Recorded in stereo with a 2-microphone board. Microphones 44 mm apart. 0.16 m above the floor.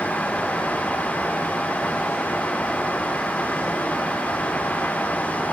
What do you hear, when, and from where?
Only background noise.